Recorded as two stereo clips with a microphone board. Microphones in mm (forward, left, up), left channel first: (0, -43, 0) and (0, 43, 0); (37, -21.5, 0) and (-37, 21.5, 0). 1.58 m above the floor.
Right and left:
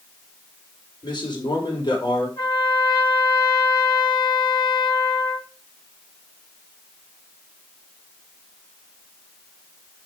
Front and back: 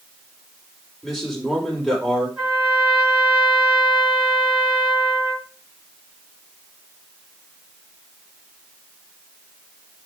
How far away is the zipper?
I don't hear a zipper.